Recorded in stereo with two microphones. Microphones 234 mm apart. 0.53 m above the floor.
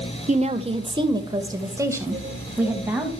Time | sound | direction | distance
0.3 | a woman speaking | 30° right (ahead or behind) | 1.4 m